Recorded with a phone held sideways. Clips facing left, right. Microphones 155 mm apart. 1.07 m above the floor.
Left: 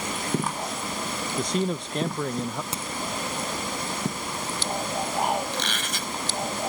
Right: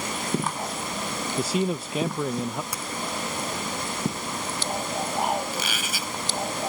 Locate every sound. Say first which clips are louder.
1.4 s a man speaking: right 1 dB; 5° right (ahead or behind)
2.7 s a crack: left 1 dB; 25° left (ahead or behind)
5.5 s a squeak: even; 5° right (ahead or behind)